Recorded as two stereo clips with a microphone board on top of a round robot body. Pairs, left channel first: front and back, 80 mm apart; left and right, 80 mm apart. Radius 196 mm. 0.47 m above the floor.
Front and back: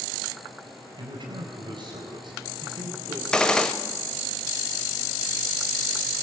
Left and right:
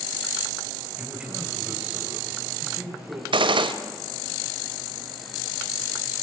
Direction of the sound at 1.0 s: 170° right.